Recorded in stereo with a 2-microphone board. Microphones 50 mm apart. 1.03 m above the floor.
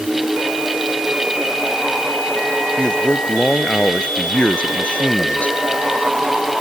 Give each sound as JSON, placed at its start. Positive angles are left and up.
{"t": 2.8, "sound": "a man speaking", "side_deg": 20}